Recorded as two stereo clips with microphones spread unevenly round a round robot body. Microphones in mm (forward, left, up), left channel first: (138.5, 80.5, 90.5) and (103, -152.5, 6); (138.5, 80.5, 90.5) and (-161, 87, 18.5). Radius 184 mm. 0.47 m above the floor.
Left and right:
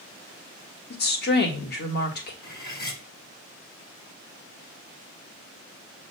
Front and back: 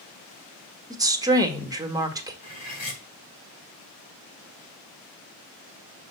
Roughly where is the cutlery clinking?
Ahead left.